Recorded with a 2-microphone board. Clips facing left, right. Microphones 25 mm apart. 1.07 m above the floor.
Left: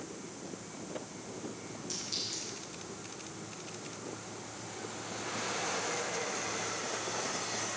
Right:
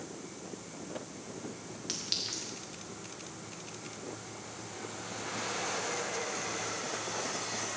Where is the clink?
70° right (ahead or behind), 1.4 m.